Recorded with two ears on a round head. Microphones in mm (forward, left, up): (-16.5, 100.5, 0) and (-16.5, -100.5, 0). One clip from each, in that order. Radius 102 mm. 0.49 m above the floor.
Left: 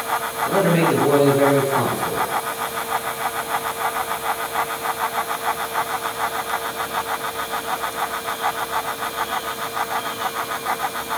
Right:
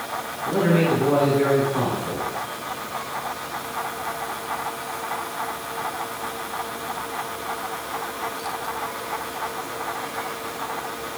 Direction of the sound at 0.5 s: 20° left (ahead or behind).